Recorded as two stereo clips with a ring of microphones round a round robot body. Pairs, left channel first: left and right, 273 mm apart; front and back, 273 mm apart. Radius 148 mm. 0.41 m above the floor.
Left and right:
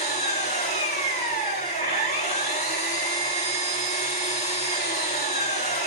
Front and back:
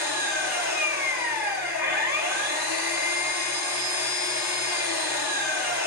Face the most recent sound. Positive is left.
turn(degrees=25)